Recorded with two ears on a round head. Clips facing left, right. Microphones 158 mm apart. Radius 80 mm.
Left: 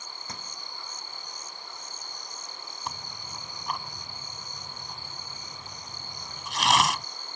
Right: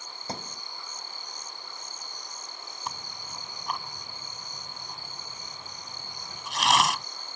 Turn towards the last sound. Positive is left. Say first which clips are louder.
# even
turn(degrees=0)  # may be behind; listen again after turning